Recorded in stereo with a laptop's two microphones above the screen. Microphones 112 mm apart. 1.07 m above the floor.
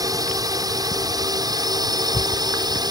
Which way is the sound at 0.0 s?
35° right (ahead or behind).